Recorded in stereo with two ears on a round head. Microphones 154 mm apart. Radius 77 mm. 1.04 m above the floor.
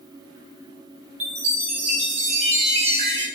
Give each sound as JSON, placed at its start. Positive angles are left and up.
{"t": 1.2, "sound": "a chime", "side_deg": -40, "distance_m": 0.7}